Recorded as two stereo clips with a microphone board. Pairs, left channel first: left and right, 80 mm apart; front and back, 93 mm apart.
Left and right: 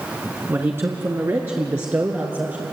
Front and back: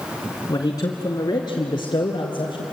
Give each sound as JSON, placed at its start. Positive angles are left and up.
{"t": 0.5, "sound": "a man speaking", "azimuth_deg": -40, "distance_m": 2.5}